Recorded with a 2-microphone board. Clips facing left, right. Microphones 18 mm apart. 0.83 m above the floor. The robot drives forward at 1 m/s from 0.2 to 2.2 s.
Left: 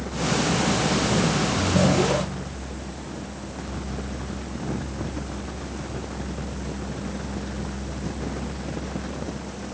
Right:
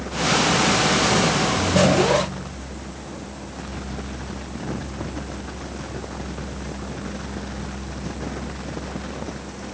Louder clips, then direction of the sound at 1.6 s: Right 3 dB; 50° right (ahead or behind).